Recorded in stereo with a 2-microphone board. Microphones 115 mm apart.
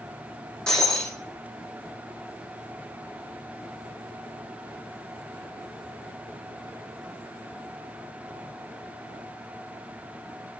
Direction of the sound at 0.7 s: 5° left (ahead or behind).